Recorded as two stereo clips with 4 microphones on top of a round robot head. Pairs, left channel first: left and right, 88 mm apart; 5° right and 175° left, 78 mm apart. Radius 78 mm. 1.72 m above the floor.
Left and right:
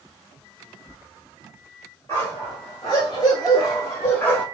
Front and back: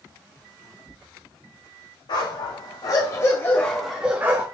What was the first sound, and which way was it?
A dog barking, 20° left.